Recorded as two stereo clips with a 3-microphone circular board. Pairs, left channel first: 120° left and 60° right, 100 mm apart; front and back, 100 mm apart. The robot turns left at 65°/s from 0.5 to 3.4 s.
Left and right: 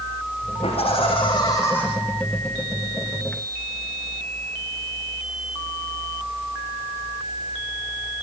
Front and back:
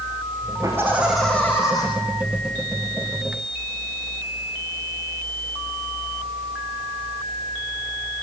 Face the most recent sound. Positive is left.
turn(degrees=-55)